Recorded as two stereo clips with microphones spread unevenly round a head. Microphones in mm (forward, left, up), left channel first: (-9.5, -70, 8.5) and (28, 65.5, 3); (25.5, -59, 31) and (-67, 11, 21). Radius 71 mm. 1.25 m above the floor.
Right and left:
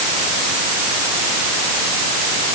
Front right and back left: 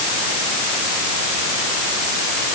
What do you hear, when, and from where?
Only background noise.